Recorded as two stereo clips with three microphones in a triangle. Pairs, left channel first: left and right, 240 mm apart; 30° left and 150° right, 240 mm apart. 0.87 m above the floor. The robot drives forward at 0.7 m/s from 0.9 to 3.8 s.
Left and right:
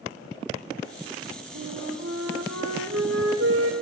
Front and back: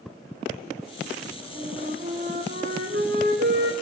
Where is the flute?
95° right, 6 m; by 3.7 s 105° right, 6.5 m.